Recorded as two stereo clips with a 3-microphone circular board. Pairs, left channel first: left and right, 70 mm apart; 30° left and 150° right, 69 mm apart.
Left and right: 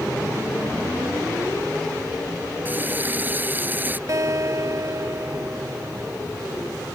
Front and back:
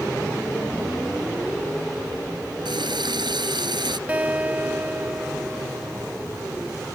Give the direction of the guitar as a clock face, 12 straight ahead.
3 o'clock.